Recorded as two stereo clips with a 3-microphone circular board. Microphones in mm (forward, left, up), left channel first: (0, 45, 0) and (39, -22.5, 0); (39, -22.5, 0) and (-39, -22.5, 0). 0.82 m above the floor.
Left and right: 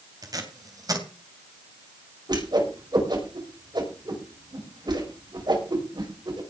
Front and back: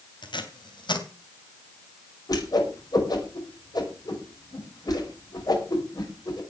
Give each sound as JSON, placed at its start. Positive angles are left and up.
{"t": 0.2, "sound": "tape being pulled", "azimuth_deg": -20, "distance_m": 3.0}
{"t": 2.3, "sound": "a whoosh", "azimuth_deg": -35, "distance_m": 5.0}